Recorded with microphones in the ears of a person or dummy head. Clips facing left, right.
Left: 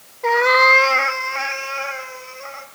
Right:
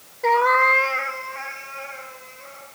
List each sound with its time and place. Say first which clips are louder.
0.2 s a cat meowing: left 3 dB; 10° right (ahead or behind), 0.5 m; by 2.6 s 85° left, 3.5 m